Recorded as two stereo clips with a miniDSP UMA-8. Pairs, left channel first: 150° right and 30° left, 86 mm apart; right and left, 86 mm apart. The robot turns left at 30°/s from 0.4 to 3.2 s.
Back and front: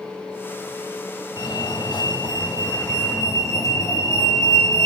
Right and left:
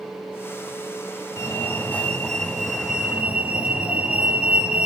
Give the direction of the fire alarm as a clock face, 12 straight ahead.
5 o'clock.